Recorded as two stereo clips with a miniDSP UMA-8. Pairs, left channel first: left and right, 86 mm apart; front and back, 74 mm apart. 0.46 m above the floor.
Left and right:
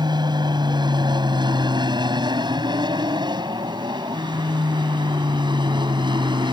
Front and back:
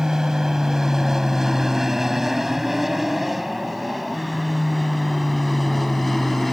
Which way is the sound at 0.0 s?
100° right.